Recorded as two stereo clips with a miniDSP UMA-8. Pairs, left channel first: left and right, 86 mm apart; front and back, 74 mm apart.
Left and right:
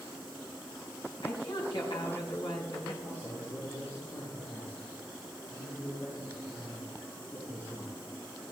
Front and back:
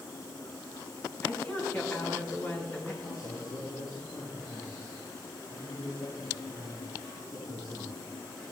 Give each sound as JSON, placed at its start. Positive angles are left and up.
{"t": 1.2, "sound": "a woman speaking", "azimuth_deg": 55, "distance_m": 3.5}
{"t": 3.0, "sound": "a man speaking", "azimuth_deg": 25, "distance_m": 5.0}